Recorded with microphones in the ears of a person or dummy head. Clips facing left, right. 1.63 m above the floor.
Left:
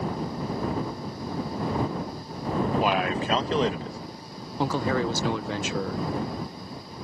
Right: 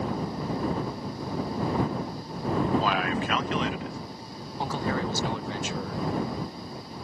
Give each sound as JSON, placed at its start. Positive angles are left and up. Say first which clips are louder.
{"t": 2.8, "sound": "a man speaking", "louder": "left 2 dB", "side_deg": 15}
{"t": 4.6, "sound": "a man speaking", "louder": "left 4 dB", "side_deg": 70}